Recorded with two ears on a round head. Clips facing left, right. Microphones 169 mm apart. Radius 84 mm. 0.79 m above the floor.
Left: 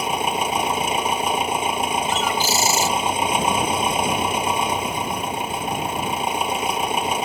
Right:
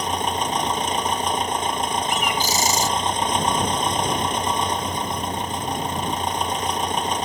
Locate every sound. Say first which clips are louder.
0.0 s an engine running: left 1 dB; 10° left (ahead or behind)
2.1 s a bird: left 1 dB; 15° right (ahead or behind)